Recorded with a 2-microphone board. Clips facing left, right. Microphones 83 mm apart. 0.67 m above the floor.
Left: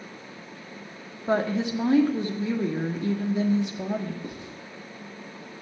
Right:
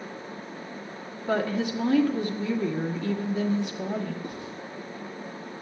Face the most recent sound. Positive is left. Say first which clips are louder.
# right 2 dB
turn(degrees=20)  # may be behind; listen again after turning